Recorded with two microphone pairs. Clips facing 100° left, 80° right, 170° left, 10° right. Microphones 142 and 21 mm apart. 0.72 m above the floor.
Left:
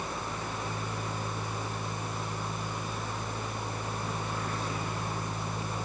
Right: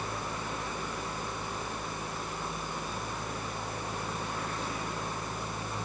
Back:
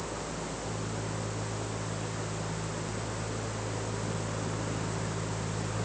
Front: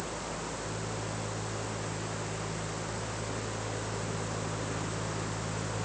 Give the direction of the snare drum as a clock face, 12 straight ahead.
No snare drum in this recording.